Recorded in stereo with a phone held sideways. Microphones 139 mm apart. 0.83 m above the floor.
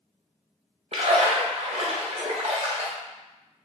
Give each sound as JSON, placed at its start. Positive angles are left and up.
{"t": 0.9, "sound": "a splash", "side_deg": -55, "distance_m": 0.6}